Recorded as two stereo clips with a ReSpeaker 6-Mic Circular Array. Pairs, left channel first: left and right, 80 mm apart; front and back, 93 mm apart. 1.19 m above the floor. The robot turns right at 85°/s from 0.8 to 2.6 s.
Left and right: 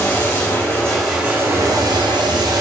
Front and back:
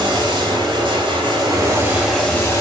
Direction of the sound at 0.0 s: 160° left.